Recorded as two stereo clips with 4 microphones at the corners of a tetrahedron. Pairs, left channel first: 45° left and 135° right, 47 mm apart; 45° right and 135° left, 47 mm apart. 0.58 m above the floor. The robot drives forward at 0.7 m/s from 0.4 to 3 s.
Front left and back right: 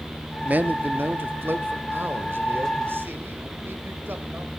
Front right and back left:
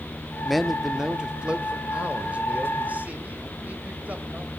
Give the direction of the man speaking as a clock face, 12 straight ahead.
4 o'clock.